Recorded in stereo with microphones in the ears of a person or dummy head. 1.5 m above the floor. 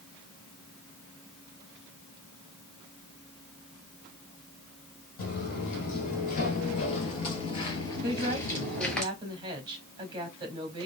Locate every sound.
5.2 s footsteps: 55° left (ahead or behind), 2.5 m; by 9.0 s 5° left (ahead or behind), 1.7 m
8.0 s a woman speaking: 25° right (ahead or behind), 2.5 m